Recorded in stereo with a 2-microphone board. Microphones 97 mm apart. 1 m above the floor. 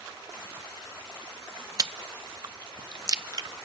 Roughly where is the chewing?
Right.